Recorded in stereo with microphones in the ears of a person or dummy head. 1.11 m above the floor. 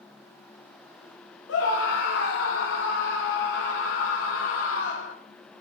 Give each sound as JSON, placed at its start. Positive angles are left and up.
{"t": 1.5, "sound": "a scream", "side_deg": 65, "distance_m": 1.5}